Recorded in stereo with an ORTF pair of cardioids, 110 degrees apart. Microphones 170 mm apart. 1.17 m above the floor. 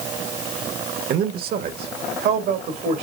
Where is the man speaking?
60° right, 1.2 m; by 3.0 s 75° right, 2.5 m.